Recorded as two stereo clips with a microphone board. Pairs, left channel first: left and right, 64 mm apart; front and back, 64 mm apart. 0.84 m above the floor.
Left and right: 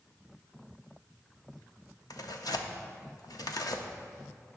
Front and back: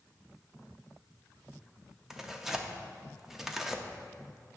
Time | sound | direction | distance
2.1 | tearing paper | 95° left | 0.5 m